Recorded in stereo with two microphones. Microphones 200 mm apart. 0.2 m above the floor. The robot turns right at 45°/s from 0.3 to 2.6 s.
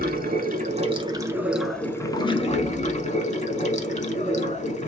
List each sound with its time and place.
0.0 s running water: 60° right, 0.7 m; by 4.9 s 45° left, 0.7 m